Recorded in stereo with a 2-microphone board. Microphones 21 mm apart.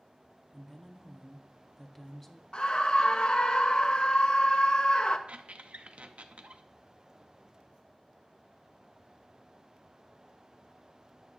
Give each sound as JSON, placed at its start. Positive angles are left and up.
{"t": 0.5, "sound": "a woman speaking", "side_deg": 10, "distance_m": 1.3}
{"t": 2.5, "sound": "a scream", "side_deg": 40, "distance_m": 0.8}
{"t": 5.3, "sound": "a squeak", "side_deg": -65, "distance_m": 0.8}